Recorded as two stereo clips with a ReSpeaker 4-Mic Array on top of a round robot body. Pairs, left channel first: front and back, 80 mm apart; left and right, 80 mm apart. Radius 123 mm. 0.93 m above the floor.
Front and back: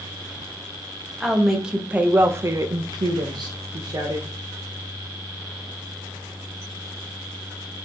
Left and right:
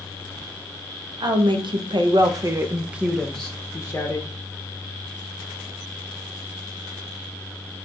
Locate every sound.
1.2 s a woman speaking: 95° right, 1.0 m; by 4.3 s 145° left, 0.9 m